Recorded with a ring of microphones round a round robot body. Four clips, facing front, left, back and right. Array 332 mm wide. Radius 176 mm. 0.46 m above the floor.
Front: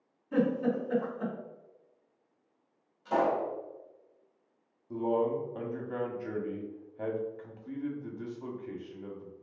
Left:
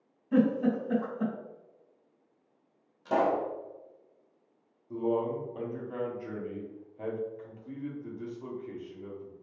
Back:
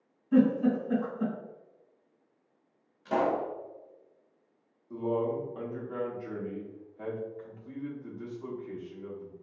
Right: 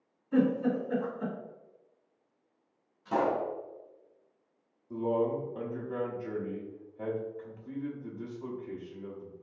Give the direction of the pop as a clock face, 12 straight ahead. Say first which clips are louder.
Left 2 dB, even; 8 o'clock.